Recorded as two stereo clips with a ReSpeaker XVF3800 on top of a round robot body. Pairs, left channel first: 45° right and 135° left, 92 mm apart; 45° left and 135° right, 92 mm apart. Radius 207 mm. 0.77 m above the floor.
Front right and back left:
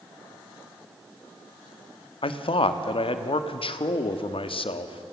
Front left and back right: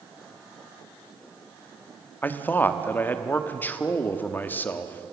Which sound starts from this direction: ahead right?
A man speaking, at 2.2 s.